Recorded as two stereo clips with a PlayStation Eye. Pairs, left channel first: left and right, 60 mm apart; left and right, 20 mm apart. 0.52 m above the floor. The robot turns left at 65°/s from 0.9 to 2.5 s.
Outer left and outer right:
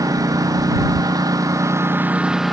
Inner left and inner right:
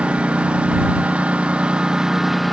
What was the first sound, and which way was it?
A lawn mower, 75° right.